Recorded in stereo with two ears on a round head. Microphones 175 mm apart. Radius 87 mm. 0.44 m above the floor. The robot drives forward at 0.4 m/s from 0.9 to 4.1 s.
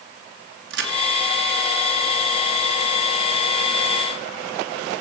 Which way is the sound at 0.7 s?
65° right (ahead or behind).